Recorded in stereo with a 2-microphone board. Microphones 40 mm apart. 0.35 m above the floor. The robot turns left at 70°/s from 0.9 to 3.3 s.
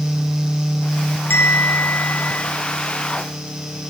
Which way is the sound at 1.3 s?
125° left.